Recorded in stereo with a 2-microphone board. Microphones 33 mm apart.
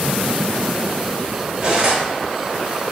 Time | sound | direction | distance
1.6 | cutlery clinking | 35° right (ahead or behind) | 1.1 m